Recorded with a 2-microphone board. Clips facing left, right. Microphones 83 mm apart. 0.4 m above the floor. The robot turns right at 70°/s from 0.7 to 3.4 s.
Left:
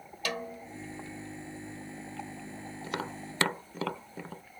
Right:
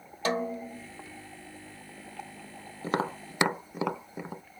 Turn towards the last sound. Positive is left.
turn(degrees=-15)  # may be behind; listen again after turning